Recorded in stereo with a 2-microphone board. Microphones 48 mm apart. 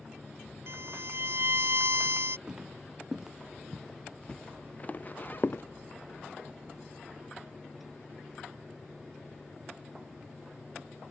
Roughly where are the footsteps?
Centre.